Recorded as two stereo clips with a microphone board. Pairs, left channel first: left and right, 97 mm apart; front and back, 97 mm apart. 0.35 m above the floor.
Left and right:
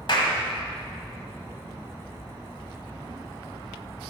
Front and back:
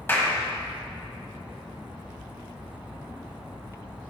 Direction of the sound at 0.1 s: 65° left.